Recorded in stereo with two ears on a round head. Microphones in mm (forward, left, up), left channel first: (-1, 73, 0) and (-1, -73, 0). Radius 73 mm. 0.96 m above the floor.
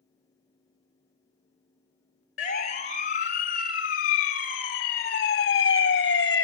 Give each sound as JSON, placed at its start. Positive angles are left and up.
{"t": 2.4, "sound": "a siren", "side_deg": 45, "distance_m": 4.0}